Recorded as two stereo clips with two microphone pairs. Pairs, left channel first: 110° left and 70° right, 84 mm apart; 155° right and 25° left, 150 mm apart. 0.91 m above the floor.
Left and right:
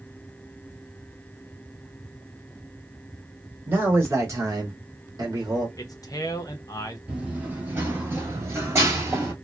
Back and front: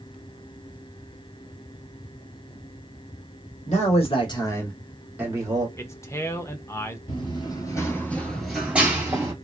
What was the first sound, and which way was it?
A man speaking, 130° right.